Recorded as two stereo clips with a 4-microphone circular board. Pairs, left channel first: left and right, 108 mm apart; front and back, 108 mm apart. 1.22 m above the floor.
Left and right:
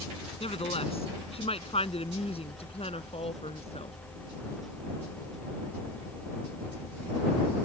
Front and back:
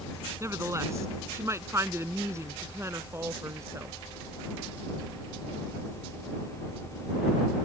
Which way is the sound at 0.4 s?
115° left.